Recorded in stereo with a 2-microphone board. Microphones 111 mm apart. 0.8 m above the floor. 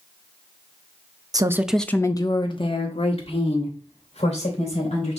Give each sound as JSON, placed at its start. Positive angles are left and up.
{"t": 1.3, "sound": "a woman speaking", "side_deg": -35, "distance_m": 0.6}